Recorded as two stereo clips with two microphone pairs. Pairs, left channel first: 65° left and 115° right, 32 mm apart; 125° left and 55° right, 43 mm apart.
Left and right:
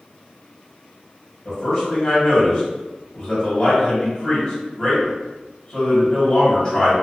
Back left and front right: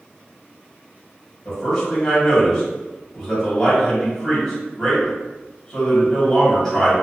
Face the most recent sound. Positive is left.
turn(degrees=45)